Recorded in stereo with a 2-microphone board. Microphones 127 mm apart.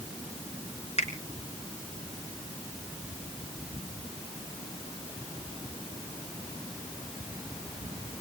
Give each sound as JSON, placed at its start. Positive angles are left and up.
{"t": 1.0, "sound": "a finger snap", "side_deg": 60, "distance_m": 3.0}